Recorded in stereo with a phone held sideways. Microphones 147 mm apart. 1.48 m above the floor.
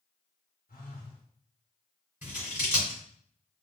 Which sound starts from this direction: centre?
Scissors, at 2.2 s.